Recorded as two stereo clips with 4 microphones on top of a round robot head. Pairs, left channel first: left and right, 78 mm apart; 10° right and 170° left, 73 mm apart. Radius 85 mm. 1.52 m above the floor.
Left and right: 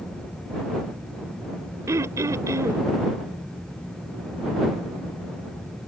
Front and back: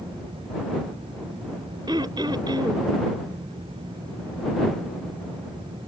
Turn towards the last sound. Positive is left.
turn(degrees=-135)